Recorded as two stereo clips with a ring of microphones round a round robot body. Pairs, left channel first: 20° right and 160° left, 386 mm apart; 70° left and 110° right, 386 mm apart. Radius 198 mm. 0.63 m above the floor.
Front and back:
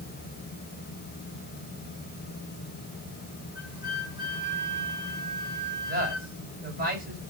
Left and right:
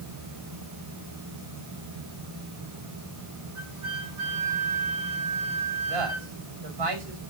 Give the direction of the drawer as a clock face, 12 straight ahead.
No drawer in this recording.